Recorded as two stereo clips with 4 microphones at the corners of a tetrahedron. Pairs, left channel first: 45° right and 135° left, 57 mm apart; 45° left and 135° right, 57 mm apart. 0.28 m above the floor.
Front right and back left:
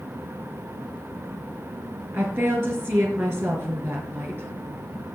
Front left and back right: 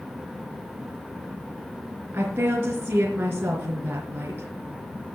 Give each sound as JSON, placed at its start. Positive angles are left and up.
{"t": 2.1, "sound": "a woman speaking", "azimuth_deg": 175, "distance_m": 3.5}